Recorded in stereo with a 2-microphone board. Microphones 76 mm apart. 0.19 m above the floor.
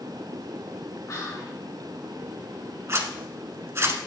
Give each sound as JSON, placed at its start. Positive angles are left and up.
{"t": 1.1, "sound": "whispering", "side_deg": 45, "distance_m": 2.5}
{"t": 2.9, "sound": "a zipper", "side_deg": -35, "distance_m": 0.8}